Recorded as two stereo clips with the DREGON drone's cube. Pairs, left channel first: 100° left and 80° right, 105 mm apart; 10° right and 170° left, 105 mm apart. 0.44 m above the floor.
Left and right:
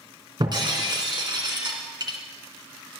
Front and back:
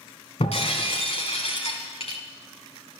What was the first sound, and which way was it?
Breaking glass, 30° right.